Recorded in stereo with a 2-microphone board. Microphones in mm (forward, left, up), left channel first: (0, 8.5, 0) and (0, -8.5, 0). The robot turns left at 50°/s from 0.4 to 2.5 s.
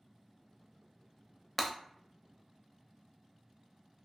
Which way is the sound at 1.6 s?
5° left (ahead or behind).